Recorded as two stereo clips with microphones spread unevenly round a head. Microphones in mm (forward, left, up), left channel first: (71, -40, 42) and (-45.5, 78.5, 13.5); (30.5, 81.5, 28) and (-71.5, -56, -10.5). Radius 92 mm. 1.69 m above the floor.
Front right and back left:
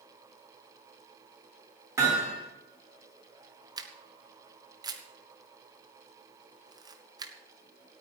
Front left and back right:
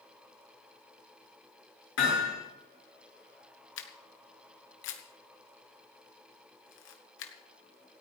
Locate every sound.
2.0 s hammering: 60° left, 10 m
3.8 s a camera shutter: 65° left, 1.9 m